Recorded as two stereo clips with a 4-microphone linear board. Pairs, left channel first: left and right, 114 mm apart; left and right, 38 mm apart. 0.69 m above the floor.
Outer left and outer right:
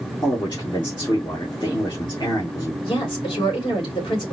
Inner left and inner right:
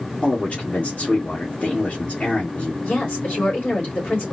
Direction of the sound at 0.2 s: 40° left (ahead or behind).